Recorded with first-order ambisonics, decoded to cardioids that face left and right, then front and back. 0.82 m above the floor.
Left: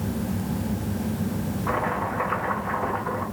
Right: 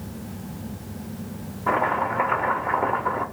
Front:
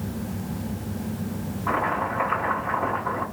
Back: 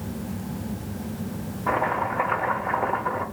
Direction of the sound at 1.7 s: 140° right.